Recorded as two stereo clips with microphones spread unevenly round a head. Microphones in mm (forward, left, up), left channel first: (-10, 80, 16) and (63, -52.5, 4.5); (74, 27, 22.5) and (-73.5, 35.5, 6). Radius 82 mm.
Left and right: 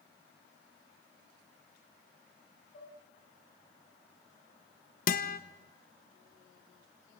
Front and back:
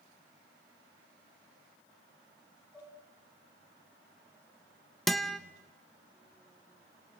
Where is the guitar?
85° left, 1.3 m.